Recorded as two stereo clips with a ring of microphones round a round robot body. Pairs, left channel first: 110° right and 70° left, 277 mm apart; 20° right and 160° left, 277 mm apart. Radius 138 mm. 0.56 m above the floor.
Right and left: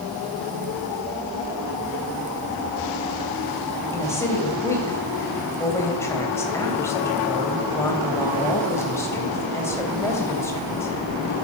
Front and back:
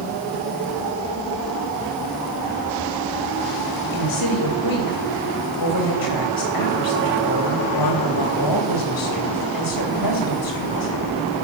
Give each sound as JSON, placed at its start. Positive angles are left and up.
{"t": 3.9, "sound": "a woman speaking", "azimuth_deg": -30, "distance_m": 3.0}